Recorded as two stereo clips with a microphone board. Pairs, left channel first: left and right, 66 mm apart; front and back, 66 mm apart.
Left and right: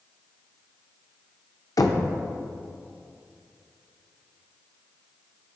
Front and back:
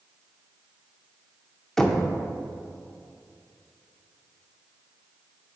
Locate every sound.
1.8 s knocking: 80° left, 0.5 m